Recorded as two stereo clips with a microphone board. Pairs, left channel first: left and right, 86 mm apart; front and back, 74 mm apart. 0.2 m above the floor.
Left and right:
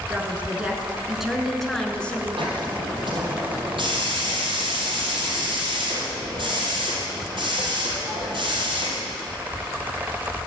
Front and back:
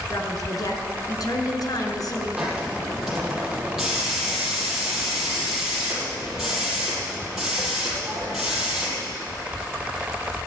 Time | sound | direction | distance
0.1 | a woman speaking | 25° right | 3 m
2.4 | a hiss | 95° right | 5 m